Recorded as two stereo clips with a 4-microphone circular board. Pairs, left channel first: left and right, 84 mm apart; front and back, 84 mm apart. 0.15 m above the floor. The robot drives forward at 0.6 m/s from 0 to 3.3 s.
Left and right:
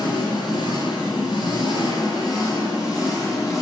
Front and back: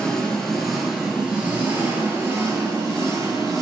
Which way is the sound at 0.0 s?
80° left.